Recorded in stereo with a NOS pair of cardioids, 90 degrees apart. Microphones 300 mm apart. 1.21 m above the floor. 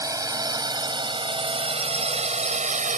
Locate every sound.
0.0 s a drone: 10° right; by 3.0 s 25° right